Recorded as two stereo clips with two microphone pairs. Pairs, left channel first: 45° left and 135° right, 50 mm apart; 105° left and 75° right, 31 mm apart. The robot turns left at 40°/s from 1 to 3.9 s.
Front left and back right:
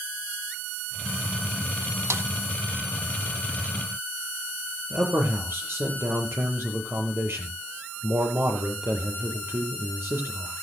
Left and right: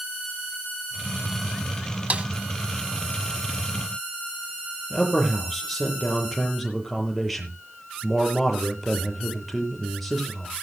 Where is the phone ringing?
No phone ringing in this recording.